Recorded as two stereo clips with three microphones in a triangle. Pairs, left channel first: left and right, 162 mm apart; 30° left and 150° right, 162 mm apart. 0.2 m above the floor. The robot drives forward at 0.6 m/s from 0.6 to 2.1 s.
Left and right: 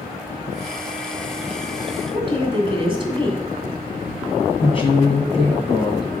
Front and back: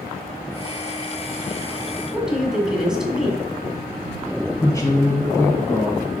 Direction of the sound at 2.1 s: 70° right.